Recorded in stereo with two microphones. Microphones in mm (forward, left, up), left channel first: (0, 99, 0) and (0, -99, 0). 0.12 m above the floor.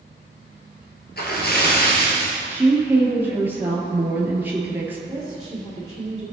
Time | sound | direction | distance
1.2 | a splash | 55° left (ahead or behind) | 2 m
2.5 | a woman speaking | 10° right (ahead or behind) | 2 m
5.1 | a woman speaking | 25° right (ahead or behind) | 2.5 m